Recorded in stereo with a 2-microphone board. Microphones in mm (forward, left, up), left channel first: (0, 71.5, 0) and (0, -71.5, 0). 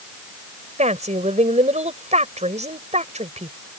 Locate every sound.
0.8 s a woman speaking: 55° right (ahead or behind)